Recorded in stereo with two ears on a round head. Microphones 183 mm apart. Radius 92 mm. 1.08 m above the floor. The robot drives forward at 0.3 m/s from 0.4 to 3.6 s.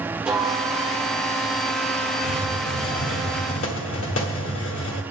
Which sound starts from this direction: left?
A hiss, at 2.2 s.